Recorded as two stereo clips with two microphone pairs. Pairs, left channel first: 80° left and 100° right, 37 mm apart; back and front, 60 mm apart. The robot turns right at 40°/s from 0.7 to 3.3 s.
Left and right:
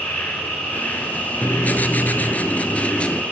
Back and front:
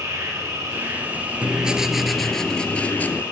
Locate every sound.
0.0 s an insect: 40° left, 4.5 m; by 3.3 s 145° left, 4.5 m
1.4 s writing: 60° left, 0.6 m; by 3.2 s 130° left, 0.6 m